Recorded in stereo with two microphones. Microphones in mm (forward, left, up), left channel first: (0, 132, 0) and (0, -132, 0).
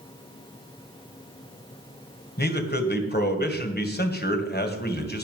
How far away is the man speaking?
About 2 m.